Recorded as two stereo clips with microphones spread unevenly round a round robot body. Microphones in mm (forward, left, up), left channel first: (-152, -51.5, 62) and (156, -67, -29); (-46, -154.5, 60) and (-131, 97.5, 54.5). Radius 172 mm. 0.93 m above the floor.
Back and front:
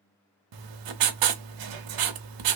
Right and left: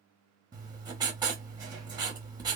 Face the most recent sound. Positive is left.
turn(degrees=30)